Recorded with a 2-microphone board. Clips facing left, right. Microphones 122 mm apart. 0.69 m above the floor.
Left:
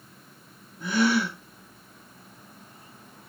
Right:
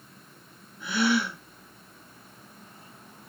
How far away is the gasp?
About 1.0 m.